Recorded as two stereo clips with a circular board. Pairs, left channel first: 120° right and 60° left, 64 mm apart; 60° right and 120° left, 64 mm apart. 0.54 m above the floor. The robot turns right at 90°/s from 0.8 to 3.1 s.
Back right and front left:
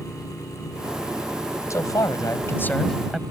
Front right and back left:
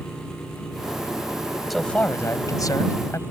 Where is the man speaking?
150° right; by 3.2 s 25° right.